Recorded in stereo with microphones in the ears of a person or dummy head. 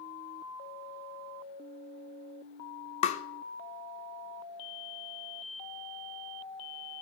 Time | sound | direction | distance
3.0 | tapping | 40° left (ahead or behind) | 0.6 m